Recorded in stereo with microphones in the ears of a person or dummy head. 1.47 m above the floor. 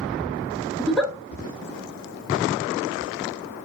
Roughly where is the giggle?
Centre.